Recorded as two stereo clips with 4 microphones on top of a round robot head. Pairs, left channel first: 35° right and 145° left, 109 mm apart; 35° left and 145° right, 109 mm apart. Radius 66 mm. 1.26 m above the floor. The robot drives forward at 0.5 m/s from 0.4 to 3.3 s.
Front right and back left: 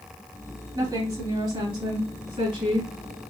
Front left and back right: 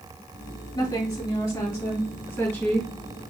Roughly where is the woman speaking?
Left.